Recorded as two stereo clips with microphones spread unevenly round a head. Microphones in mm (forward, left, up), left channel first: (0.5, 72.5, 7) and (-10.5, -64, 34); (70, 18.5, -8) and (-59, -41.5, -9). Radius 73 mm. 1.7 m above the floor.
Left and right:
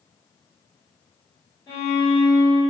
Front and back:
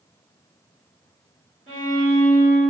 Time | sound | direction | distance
1.7 | a violin | 175° right | 1.8 m